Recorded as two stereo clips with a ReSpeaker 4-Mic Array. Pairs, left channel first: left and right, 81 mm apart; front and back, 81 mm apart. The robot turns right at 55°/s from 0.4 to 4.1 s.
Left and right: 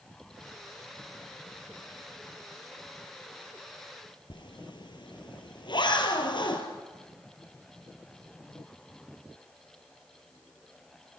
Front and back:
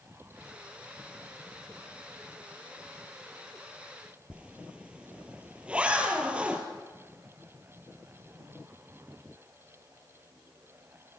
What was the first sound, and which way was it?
A zipper, 105° left.